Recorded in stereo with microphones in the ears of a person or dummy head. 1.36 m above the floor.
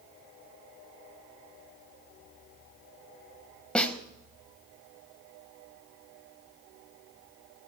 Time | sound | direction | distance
3.8 | a snare drum | centre (ahead or behind) | 0.8 m